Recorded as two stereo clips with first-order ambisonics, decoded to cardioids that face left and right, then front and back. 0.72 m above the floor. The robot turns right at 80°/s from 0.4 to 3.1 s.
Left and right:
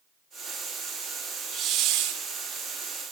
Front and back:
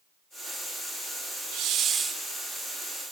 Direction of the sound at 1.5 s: 150° right.